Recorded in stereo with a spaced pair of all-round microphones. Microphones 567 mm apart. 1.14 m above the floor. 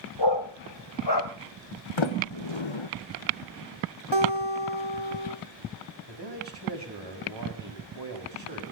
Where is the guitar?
50° right (ahead or behind), 2.5 m.